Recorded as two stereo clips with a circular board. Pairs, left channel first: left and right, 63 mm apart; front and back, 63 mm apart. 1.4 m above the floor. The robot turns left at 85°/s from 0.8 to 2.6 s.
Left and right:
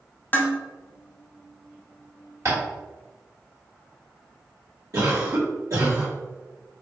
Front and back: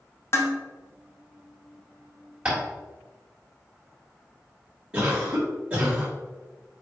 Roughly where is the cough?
Right.